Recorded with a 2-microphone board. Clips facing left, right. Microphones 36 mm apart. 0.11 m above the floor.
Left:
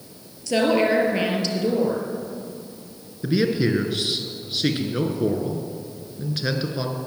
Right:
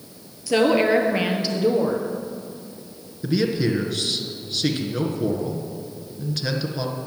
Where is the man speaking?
15° left (ahead or behind), 1.4 m.